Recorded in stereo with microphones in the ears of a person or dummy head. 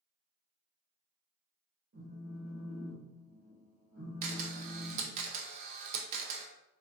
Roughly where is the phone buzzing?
Right.